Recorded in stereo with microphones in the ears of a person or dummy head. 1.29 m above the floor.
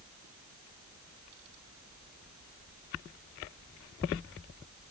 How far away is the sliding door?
No sliding door in this recording.